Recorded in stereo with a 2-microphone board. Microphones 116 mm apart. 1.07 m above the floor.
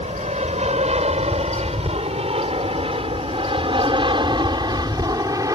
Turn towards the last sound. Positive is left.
turn(degrees=-30)  # may be behind; listen again after turning